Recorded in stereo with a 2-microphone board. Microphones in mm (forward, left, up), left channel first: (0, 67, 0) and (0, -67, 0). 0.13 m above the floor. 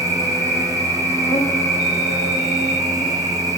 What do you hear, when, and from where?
0.0 s an insect: 20° left (ahead or behind), 0.7 m